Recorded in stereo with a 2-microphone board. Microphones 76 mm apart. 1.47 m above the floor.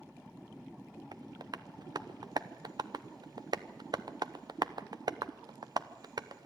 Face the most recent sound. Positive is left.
turn(degrees=-60)  # may be behind; listen again after turning